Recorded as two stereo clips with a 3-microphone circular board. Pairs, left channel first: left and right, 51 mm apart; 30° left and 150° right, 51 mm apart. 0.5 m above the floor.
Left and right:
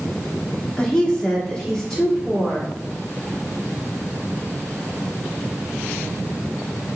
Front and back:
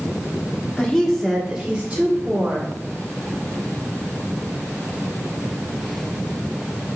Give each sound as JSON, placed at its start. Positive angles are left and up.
{"t": 0.8, "sound": "a woman speaking", "azimuth_deg": 60, "distance_m": 0.8}